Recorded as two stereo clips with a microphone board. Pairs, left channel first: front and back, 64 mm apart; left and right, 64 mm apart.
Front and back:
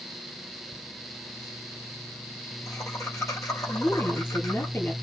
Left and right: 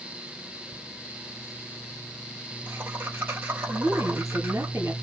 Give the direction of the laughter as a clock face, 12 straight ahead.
1 o'clock.